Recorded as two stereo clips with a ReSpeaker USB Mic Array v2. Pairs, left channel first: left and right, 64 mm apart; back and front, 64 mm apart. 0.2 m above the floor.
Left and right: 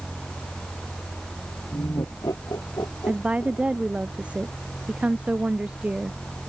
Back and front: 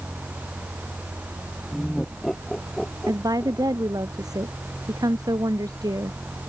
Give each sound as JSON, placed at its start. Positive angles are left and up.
{"t": 1.7, "sound": "laughter", "azimuth_deg": 100}
{"t": 3.1, "sound": "a woman speaking", "azimuth_deg": -15}